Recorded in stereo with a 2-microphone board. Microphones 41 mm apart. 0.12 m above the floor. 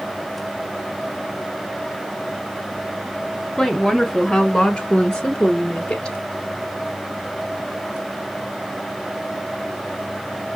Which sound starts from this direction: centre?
A woman speaking, at 3.6 s.